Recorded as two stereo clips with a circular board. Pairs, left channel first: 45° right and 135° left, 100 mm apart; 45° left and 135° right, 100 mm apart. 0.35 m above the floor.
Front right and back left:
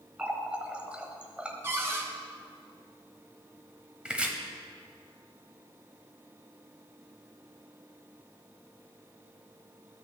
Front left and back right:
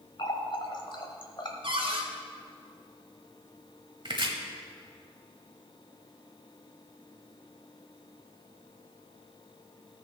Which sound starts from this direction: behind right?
Chopping, at 4.0 s.